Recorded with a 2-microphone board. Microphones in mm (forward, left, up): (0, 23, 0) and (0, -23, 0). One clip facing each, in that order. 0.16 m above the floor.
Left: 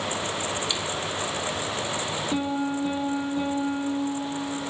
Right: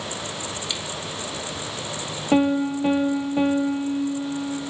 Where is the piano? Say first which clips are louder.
Right 9 dB; 70° right (ahead or behind), 1.0 m.